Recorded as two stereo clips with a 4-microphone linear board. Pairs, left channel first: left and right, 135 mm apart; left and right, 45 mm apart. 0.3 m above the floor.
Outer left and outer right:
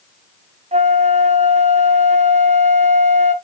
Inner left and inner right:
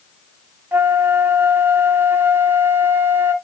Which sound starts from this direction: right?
A flute, at 0.7 s.